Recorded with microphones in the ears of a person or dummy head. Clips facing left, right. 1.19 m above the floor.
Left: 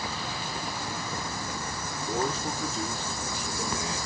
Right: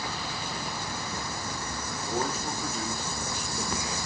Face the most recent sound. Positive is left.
turn(degrees=-5)  # may be behind; listen again after turning